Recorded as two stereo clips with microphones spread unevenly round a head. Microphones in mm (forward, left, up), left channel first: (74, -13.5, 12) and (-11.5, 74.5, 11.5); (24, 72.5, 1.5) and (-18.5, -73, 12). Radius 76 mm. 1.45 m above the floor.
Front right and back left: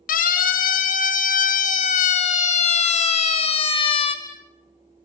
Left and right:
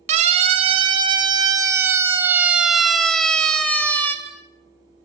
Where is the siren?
55° right, 2.5 m; by 4.2 s straight ahead, 3 m.